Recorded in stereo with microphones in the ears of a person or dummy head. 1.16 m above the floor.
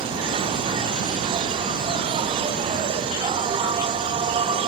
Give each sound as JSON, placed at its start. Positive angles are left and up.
{"t": 0.0, "sound": "an insect", "side_deg": -25, "distance_m": 1.1}